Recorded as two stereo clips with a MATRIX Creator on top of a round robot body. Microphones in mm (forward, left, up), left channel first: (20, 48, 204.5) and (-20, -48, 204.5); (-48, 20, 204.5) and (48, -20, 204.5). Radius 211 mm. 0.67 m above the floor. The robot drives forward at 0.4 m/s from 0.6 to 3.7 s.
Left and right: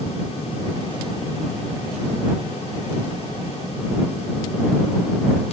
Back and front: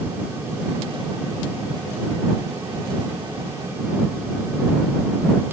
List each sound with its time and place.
Only background noise.